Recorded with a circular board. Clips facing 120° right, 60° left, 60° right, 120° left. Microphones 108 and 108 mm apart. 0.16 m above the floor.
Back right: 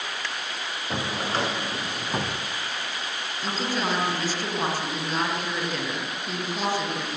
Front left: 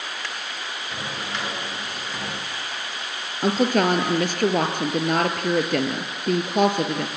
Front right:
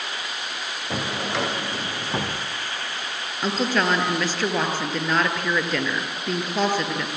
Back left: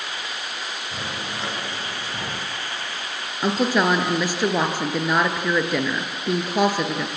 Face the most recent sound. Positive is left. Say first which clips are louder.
# front left 9 dB, back left 3 dB
turn(degrees=45)